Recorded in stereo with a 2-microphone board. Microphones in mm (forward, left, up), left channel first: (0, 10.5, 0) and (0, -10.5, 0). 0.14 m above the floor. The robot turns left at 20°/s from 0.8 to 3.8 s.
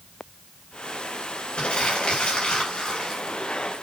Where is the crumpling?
85° left, 5 m; by 3.2 s 50° left, 5 m.